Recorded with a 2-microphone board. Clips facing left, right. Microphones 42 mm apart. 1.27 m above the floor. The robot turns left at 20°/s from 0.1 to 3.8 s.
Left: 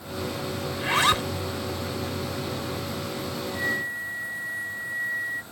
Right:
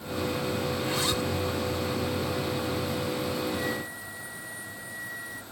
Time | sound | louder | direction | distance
0.7 | a zipper | left 6 dB | 55° left (ahead or behind) | ?
3.5 | a flute | left 4 dB | 35° left (ahead or behind) | ?